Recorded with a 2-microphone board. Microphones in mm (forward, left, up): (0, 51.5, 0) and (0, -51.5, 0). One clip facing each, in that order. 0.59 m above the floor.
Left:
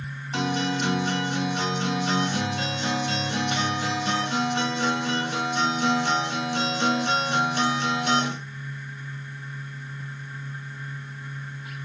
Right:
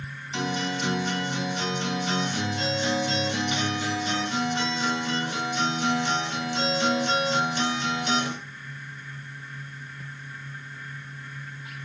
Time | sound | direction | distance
0.3 | a guitar | 50° left (ahead or behind) | 0.9 m